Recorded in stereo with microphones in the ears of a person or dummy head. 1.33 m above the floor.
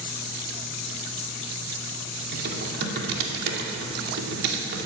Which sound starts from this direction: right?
Typing on a keyboard, at 2.3 s.